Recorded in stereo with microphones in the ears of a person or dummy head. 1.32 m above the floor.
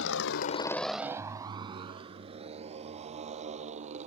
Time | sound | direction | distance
0.0 | a motorcycle | 75° left (ahead or behind) | ?